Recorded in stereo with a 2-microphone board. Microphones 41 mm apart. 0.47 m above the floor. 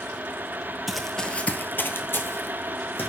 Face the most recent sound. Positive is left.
turn(degrees=55)  # may be behind; listen again after turning